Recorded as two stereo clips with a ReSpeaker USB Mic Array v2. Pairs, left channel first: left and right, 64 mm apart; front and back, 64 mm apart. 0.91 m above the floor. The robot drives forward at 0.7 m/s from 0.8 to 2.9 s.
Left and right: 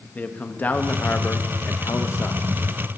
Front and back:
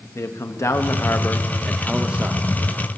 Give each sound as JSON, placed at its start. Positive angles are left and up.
{"t": 0.1, "sound": "a man speaking", "azimuth_deg": 30, "distance_m": 1.0}